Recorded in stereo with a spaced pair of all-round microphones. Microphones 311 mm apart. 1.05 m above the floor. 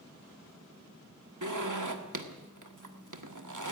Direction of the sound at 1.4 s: 70° right (ahead or behind).